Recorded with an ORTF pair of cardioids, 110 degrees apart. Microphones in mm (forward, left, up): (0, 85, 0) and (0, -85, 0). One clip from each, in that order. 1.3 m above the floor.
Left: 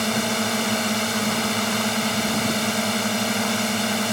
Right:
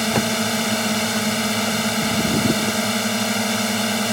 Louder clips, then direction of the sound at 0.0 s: Right 2 dB; 10° right.